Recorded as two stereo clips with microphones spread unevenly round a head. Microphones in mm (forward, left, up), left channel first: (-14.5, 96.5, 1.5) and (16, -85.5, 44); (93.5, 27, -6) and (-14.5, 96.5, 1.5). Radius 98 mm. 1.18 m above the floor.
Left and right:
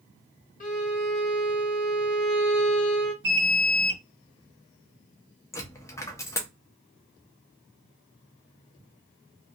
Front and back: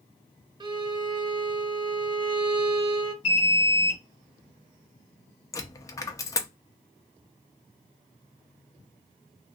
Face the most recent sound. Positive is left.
turn(degrees=15)